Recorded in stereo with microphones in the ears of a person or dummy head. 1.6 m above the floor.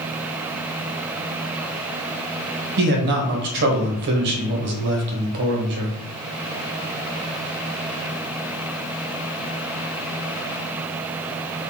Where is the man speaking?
60° right (ahead or behind), 1.3 m.